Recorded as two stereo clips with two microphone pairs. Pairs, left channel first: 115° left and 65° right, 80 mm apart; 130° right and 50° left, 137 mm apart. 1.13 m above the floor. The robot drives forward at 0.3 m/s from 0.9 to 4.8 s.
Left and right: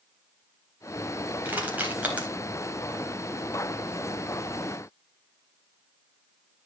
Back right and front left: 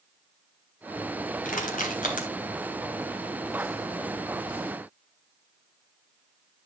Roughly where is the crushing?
Behind right.